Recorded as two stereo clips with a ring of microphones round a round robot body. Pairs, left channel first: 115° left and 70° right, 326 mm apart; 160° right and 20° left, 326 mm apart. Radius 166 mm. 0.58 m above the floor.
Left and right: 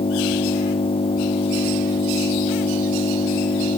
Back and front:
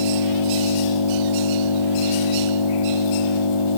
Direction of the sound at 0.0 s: 175° right.